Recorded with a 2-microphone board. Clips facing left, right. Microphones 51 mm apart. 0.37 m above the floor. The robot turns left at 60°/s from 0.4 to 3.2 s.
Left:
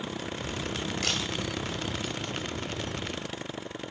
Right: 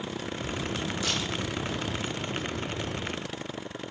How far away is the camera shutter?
About 2 m.